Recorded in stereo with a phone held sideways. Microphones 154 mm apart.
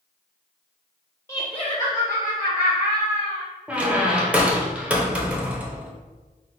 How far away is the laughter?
About 0.5 m.